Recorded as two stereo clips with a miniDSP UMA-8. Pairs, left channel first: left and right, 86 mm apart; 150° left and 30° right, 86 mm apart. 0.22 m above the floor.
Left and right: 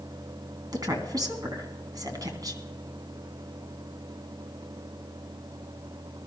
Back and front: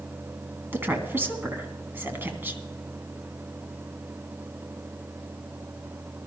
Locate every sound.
0.7 s a woman speaking: 90° right, 2 m